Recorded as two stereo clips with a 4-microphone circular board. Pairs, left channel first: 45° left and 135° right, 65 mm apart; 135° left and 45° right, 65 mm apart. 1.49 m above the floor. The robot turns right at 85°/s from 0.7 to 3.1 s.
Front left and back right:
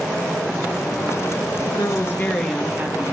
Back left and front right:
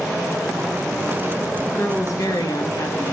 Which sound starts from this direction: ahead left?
A woman speaking, at 1.7 s.